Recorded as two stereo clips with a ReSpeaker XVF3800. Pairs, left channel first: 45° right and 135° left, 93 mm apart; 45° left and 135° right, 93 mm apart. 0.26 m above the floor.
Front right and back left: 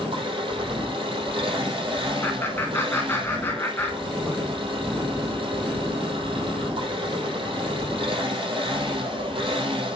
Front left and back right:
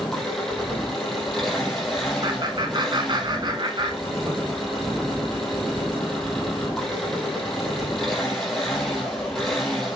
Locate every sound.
0.0 s an engine running: 130° left, 5 m
2.2 s laughter: 110° right, 2.5 m